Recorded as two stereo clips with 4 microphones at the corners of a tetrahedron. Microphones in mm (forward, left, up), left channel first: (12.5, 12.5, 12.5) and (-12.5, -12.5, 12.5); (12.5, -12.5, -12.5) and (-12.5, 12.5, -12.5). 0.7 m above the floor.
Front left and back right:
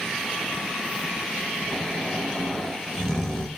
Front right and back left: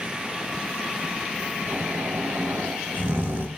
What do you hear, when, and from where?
1.7 s snoring: 120° left, 1.5 m